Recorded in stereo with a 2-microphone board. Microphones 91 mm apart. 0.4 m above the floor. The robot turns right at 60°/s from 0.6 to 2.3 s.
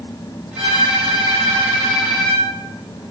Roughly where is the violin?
Right.